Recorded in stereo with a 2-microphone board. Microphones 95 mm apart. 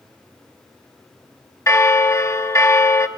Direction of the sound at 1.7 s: 30° left (ahead or behind).